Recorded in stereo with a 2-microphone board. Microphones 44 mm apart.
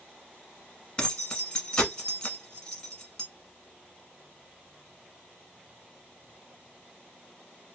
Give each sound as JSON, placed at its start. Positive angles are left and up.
{"t": 1.0, "sound": "keys jangling", "side_deg": 20, "distance_m": 1.0}